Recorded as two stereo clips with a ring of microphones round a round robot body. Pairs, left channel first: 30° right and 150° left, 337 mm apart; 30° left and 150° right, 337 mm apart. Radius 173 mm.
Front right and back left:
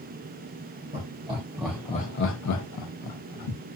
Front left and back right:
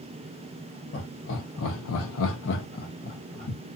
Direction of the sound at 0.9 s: 90° left.